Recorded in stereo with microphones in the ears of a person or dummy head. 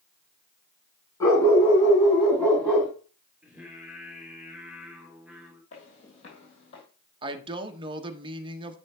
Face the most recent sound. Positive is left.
turn(degrees=-25)  # may be behind; listen again after turning